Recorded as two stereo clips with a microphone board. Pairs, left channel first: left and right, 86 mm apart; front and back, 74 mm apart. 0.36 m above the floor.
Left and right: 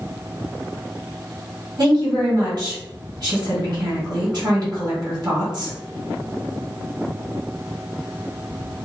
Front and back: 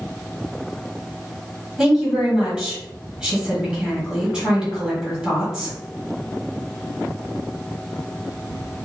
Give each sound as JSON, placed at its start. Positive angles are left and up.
{"t": 1.8, "sound": "a woman speaking", "azimuth_deg": -100, "distance_m": 1.9}